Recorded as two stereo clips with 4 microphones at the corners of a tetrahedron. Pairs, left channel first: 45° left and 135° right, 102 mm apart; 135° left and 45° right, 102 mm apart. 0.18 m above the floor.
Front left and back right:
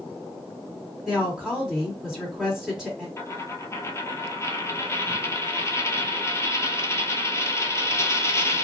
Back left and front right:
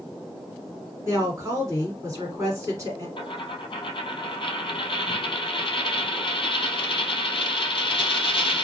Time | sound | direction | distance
1.1 | a woman speaking | 60° right | 1.7 m
3.2 | a dropped coin | 105° left | 0.5 m